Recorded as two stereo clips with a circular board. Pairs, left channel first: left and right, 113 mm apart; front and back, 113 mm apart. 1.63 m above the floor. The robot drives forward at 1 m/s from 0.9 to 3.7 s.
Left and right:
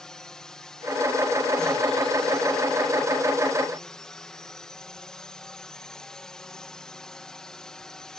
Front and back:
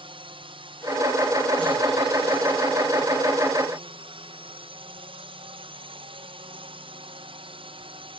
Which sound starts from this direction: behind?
A drone, at 0.0 s.